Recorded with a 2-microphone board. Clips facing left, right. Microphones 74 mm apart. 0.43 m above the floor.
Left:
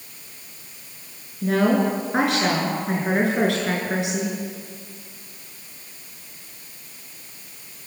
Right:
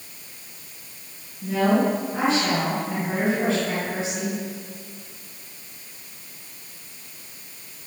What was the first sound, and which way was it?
A woman speaking, 70° left (ahead or behind).